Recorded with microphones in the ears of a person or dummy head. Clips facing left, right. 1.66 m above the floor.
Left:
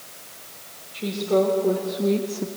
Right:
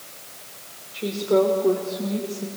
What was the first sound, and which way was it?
A woman speaking, 10° right (ahead or behind).